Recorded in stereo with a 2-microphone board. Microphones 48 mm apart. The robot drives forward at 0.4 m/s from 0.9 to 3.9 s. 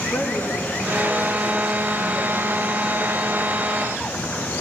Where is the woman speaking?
50° left (ahead or behind), 1.6 m; by 3.5 s 30° left (ahead or behind), 2.5 m.